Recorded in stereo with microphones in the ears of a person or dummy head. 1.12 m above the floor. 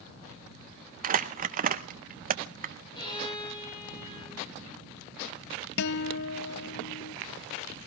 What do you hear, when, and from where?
1.0 s crumpling: 45° right (ahead or behind), 0.7 m
3.0 s a violin: 35° left (ahead or behind), 6 m
5.8 s a guitar: 65° left (ahead or behind), 0.6 m